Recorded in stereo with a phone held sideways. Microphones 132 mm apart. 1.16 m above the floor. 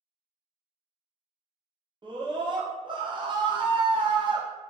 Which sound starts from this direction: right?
A scream, at 2.0 s.